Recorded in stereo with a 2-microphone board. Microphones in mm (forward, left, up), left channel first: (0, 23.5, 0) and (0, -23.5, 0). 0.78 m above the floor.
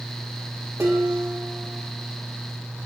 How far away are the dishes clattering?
About 1.5 m.